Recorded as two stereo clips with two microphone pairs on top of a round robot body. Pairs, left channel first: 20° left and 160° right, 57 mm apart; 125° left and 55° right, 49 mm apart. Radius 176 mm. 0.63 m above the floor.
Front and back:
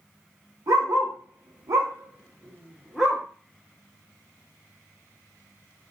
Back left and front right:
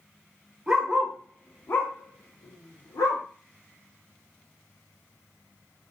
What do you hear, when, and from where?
0.7 s a dog barking: 135° right, 0.9 m; by 3.2 s 115° left, 1.0 m